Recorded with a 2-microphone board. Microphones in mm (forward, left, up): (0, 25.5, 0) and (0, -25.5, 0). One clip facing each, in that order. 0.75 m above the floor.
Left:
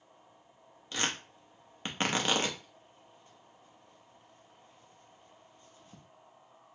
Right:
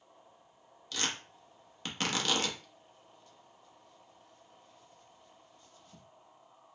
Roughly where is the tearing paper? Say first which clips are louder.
Left 2 dB; left.